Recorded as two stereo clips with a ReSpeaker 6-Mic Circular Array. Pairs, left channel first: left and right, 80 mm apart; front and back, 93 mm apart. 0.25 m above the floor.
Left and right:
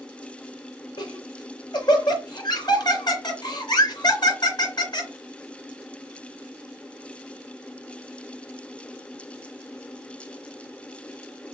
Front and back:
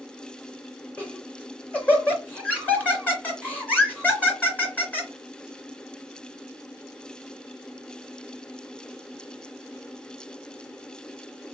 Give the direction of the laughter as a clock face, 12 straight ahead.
10 o'clock.